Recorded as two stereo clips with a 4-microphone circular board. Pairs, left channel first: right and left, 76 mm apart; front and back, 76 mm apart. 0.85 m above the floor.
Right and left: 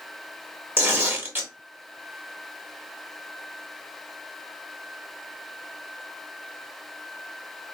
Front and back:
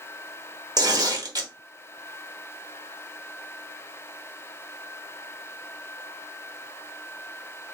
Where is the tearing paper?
150° left, 1.0 m.